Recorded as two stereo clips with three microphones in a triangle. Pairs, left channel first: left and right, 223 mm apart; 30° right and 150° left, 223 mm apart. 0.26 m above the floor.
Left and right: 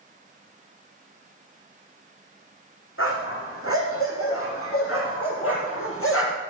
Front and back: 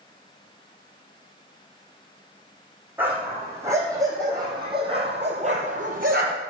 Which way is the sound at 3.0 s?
70° left.